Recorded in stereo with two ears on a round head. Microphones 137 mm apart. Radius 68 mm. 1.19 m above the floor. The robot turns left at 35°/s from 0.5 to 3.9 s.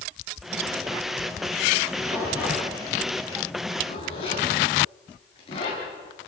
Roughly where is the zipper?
Right.